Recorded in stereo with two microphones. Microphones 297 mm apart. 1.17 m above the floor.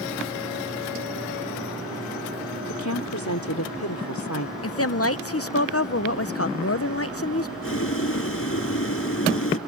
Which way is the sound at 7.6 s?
50° left (ahead or behind).